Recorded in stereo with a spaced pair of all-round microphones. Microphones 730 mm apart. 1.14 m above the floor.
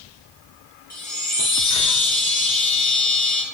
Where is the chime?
25° left (ahead or behind), 0.7 m.